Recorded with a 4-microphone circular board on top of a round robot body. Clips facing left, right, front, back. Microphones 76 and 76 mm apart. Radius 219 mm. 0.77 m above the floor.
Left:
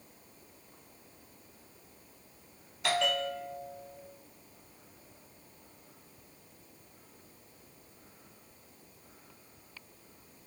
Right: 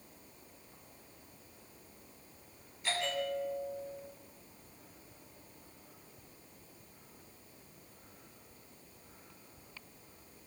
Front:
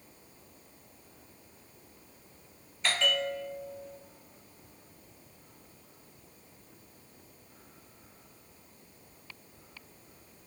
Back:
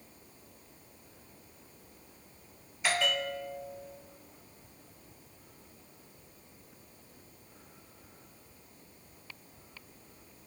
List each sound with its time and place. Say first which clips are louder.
2.8 s a bell: left 5 dB, even; 95° left, 1.5 m